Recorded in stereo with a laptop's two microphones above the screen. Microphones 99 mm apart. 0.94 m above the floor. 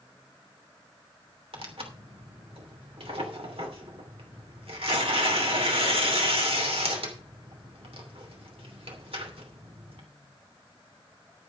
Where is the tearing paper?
70° right (ahead or behind), 3 m.